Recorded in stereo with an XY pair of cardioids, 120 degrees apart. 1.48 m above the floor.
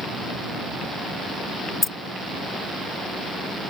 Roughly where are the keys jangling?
Ahead.